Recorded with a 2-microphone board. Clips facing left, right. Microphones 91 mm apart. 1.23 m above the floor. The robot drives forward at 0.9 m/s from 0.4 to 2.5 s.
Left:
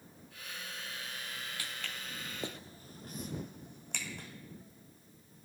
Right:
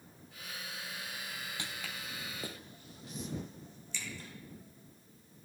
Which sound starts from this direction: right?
Footsteps, at 1.6 s.